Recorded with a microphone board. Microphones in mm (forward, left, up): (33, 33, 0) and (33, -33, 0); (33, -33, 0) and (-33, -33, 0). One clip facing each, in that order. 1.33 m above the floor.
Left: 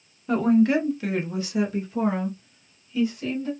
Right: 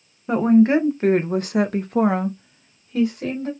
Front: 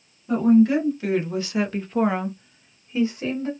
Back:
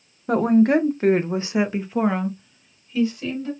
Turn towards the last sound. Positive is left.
turn(degrees=-55)